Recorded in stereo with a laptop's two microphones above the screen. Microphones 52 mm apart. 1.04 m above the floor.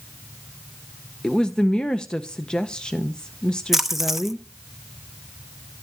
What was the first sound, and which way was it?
A woman speaking, 20° left (ahead or behind).